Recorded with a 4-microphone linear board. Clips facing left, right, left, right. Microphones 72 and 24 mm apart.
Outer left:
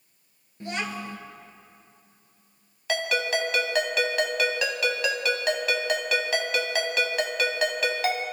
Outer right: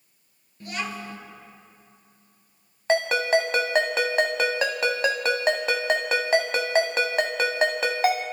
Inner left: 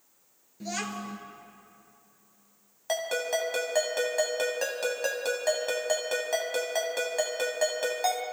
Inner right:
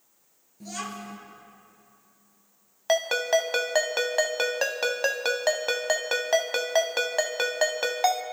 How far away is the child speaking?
About 2 m.